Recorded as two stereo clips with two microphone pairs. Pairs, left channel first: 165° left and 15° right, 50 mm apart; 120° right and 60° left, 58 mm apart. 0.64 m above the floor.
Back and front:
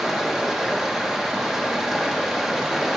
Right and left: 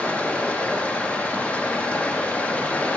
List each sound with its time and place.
0.0 s running water: 90° right, 0.9 m